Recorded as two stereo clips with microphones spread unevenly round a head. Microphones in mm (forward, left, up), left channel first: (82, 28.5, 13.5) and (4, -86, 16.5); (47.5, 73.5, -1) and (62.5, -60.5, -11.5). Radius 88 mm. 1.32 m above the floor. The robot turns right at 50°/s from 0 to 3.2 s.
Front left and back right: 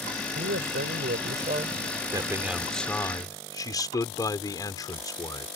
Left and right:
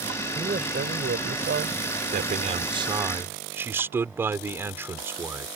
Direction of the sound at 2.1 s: 65° right.